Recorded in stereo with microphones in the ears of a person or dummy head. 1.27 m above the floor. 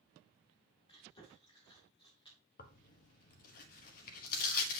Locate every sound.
0.9 s chewing: 30° left (ahead or behind), 2.5 m
2.6 s tearing paper: 50° left (ahead or behind), 1.2 m